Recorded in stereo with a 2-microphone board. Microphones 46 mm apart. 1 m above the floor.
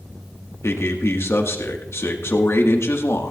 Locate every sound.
0.6 s a man speaking: 65° left (ahead or behind), 1.6 m